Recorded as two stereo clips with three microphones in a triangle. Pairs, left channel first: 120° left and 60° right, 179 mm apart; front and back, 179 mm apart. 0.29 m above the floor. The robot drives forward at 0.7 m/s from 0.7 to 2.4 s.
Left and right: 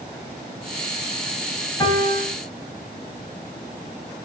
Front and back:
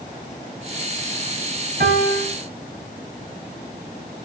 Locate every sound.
1.8 s a piano: 175° right, 5 m